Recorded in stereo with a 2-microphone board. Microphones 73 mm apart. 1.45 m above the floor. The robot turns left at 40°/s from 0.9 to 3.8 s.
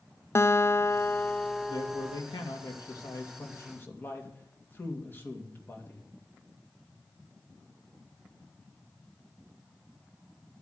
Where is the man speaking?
115° left, 2.5 m; by 6.0 s 30° left, 2.5 m.